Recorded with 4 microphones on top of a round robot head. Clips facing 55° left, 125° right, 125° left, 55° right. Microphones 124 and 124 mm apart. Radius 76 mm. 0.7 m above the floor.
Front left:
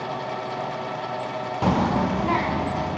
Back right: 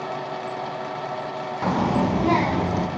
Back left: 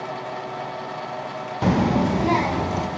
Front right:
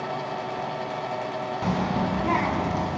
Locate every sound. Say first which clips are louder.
1.6 s a child speaking: even, back left 7 dB; 125° left, 0.6 m; by 2.9 s 170° right, 1.8 m